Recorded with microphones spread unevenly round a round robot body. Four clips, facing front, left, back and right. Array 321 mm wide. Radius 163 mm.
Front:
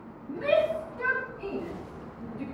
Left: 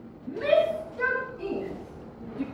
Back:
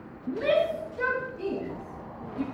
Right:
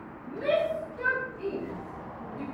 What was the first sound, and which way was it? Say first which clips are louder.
A shout: left 4 dB, even; 175° left.